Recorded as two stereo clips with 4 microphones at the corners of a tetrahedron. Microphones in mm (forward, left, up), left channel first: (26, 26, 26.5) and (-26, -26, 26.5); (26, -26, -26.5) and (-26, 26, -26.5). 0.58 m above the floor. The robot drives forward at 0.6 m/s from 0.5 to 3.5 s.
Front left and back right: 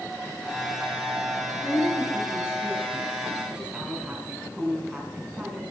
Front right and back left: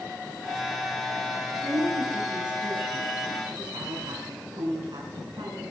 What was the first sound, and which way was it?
A woman speaking, 145° left.